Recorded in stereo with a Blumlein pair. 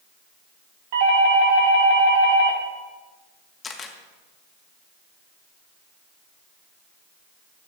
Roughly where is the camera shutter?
Ahead.